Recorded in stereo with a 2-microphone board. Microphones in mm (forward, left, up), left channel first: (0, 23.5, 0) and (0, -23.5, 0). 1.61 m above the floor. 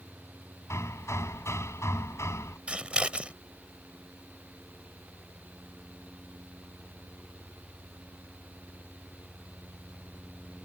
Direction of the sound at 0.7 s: 80° left.